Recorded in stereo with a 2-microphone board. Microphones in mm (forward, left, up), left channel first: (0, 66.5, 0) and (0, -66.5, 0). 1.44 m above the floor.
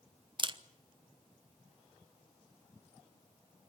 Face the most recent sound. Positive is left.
turn(degrees=-40)  # may be behind; listen again after turning